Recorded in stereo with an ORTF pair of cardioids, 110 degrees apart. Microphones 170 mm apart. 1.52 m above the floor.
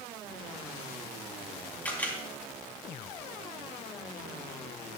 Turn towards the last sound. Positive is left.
turn(degrees=10)